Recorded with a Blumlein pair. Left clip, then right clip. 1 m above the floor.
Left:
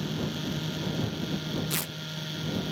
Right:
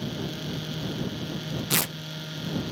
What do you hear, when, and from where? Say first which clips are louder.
1.7 s tearing paper: right 6 dB; 70° right